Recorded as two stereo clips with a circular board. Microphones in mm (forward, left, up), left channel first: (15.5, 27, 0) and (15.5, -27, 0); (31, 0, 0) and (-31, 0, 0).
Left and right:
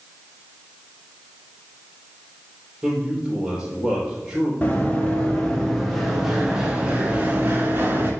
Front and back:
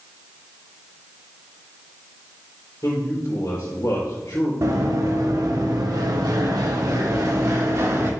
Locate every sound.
2.8 s a man speaking: 15° right, 3.5 m
4.6 s running footsteps: 155° left, 1.8 m; by 8.1 s 145° right, 2.0 m